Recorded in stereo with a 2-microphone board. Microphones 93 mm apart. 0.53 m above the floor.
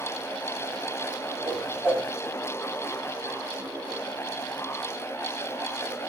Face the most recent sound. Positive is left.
turn(degrees=-10)  # may be behind; listen again after turning